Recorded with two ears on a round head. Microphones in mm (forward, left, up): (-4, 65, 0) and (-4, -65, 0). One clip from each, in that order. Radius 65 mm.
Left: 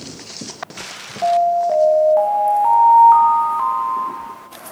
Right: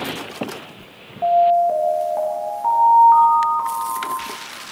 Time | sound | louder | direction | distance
1.2 | an alarm | right 1 dB | 30° left (ahead or behind) | 1.6 m